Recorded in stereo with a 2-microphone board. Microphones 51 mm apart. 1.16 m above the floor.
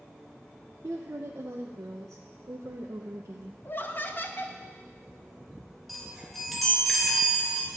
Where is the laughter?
40° left (ahead or behind), 1.1 m.